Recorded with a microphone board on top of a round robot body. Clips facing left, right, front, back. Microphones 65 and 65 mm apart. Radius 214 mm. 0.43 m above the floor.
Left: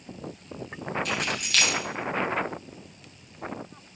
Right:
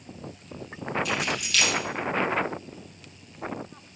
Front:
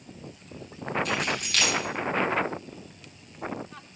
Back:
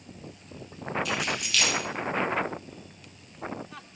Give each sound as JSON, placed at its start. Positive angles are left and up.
{"t": 1.1, "sound": "keys jangling", "azimuth_deg": 50, "distance_m": 3.0}